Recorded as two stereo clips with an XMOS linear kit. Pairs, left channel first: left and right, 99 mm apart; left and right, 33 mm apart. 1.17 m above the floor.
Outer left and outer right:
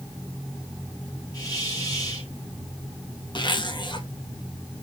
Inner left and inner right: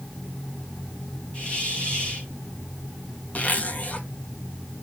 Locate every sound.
1.3 s a hiss: 35° left (ahead or behind), 4.5 m
3.4 s a zipper: 50° left (ahead or behind), 1.3 m